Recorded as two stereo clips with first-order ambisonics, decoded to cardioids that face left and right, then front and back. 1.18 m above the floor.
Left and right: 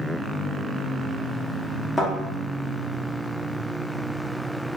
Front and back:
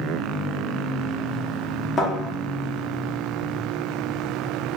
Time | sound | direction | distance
2.0 | a thud | 15° left | 0.6 m